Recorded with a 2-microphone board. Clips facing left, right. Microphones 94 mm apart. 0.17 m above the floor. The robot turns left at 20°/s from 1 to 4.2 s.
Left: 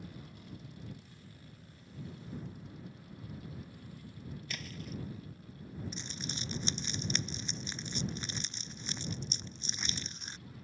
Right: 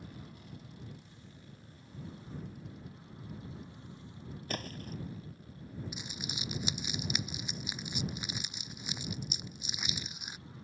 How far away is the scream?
I don't hear a scream.